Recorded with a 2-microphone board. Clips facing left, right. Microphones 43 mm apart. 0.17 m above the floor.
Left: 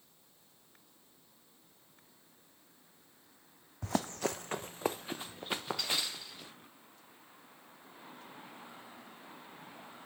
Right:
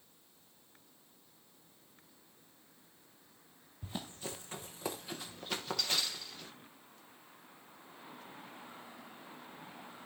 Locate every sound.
3.8 s running footsteps: 80° left, 0.7 m; by 6.5 s 10° left (ahead or behind), 2.5 m